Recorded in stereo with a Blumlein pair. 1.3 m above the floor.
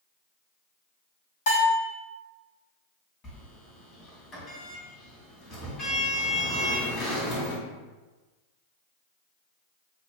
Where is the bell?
55° left, 1.4 m.